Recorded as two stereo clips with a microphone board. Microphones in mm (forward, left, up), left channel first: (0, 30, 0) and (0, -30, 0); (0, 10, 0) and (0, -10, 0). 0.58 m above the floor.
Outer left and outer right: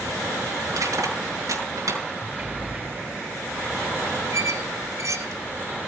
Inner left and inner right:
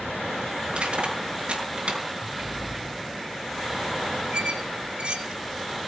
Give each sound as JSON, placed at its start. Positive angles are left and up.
{"t": 0.7, "sound": "crushing", "side_deg": -70, "distance_m": 5.5}
{"t": 2.2, "sound": "a sliding door", "side_deg": -20, "distance_m": 1.0}
{"t": 4.3, "sound": "a squeak", "side_deg": -60, "distance_m": 2.0}